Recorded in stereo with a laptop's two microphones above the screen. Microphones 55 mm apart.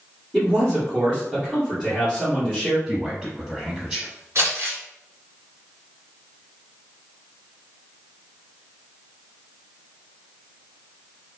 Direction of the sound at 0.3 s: 15° right (ahead or behind).